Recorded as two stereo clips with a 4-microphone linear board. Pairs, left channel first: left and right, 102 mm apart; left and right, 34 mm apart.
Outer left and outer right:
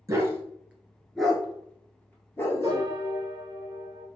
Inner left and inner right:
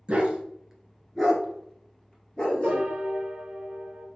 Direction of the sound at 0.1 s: 35° right (ahead or behind).